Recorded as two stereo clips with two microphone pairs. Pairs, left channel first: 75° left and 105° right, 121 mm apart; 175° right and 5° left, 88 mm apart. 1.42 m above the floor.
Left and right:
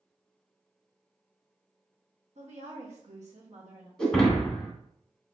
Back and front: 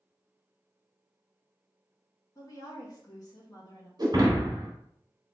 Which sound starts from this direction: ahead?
Breaking glass, at 4.0 s.